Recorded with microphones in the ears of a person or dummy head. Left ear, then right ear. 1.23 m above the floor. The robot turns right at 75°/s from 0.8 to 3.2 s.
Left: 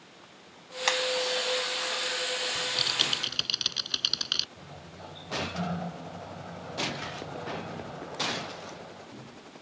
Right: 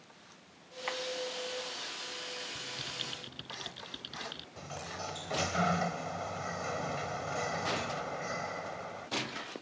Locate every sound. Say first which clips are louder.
0.9 s hammering: left 10 dB; 85° left; by 1.0 s 75° left (ahead or behind)
2.5 s typing on a keyboard: left 12 dB; 10° left; by 4.5 s 55° left
4.6 s a sliding door: right 5 dB; 60° right (ahead or behind)